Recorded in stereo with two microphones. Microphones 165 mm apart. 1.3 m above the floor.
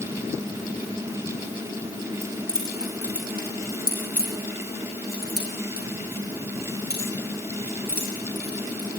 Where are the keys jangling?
65° left (ahead or behind), 4 m; by 8.9 s 70° left (ahead or behind), 8 m.